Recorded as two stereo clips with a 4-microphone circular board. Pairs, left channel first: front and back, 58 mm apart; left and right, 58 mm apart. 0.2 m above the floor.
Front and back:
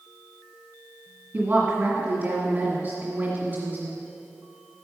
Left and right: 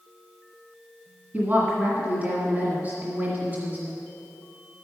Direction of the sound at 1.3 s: 130° right.